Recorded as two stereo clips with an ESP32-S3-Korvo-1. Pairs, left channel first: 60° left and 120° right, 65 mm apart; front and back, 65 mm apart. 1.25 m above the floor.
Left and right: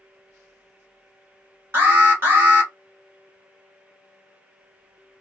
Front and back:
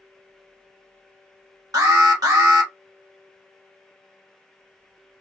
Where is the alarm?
175° right, 1.3 m.